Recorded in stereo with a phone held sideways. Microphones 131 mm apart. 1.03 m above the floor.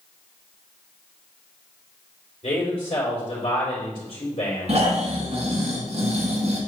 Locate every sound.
2.4 s a man speaking: 45° left (ahead or behind), 3.5 m
4.7 s snoring: 55° right (ahead or behind), 1.8 m